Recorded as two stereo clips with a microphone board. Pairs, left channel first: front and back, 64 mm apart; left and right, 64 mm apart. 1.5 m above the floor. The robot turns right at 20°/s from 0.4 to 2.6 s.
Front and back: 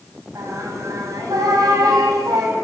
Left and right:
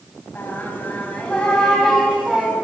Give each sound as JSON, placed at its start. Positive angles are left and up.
{"t": 0.3, "sound": "singing", "azimuth_deg": 150, "distance_m": 6.5}